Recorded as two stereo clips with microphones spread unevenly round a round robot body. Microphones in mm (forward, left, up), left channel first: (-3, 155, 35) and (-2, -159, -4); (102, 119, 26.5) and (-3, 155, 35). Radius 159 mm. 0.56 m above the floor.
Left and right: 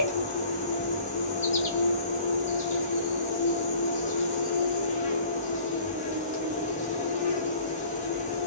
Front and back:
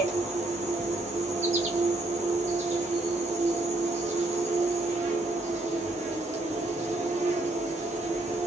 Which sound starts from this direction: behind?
An insect, at 0.0 s.